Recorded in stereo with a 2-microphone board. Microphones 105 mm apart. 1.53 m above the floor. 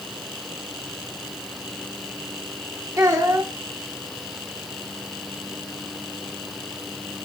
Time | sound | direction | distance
3.0 | a child speaking | 30° right (ahead or behind) | 3.5 m